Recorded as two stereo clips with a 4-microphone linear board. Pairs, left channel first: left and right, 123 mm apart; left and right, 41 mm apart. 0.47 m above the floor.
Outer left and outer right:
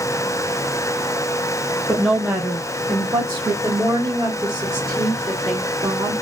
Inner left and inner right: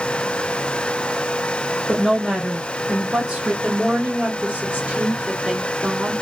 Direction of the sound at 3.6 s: 25° right (ahead or behind).